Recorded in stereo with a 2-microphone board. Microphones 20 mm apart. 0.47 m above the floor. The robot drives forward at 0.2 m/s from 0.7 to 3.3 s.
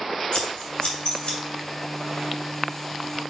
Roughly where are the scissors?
Left.